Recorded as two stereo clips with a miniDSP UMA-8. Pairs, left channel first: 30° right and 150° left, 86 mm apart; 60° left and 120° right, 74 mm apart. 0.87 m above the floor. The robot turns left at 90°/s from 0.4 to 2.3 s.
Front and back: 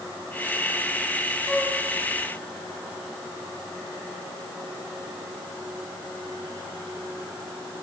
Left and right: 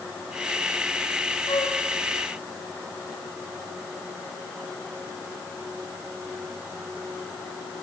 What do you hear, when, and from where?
1.5 s a flute: 60° left, 3 m; by 1.8 s 30° left, 3 m